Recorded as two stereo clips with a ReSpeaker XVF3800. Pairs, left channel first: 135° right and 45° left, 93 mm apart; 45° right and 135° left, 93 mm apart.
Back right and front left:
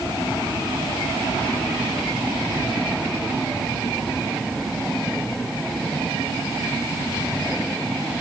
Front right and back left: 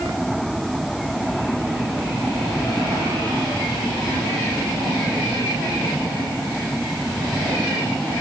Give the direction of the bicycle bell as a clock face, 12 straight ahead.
No bicycle bell in this recording.